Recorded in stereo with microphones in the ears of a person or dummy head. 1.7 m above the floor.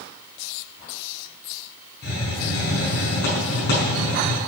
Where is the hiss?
50° left (ahead or behind), 5 m.